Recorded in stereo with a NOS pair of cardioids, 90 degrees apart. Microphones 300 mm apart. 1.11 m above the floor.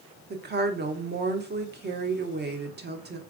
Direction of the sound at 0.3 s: 35° right.